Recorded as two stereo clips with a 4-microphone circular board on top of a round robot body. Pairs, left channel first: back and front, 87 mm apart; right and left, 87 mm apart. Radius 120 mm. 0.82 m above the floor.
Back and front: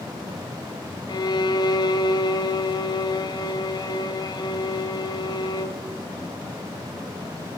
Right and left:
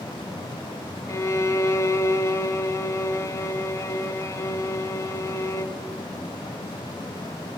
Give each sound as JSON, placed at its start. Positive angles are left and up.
{"t": 1.1, "sound": "a violin", "azimuth_deg": -145, "distance_m": 1.1}